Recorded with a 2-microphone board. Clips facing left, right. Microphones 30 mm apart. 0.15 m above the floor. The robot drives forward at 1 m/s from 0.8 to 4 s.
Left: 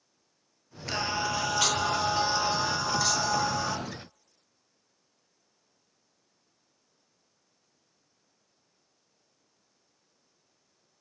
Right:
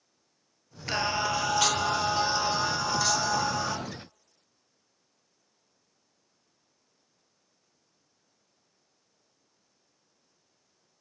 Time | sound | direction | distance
0.9 | singing | 15° right (ahead or behind) | 1.3 m